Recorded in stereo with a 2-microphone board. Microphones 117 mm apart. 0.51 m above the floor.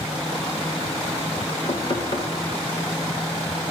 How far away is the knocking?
About 1.7 m.